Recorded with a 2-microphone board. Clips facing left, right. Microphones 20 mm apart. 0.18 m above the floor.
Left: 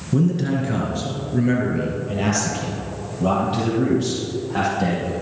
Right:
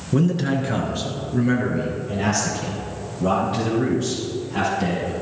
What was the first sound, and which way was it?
A man speaking, 25° right (ahead or behind).